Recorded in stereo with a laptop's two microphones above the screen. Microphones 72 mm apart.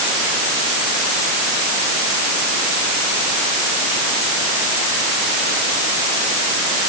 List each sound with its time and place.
Only background noise.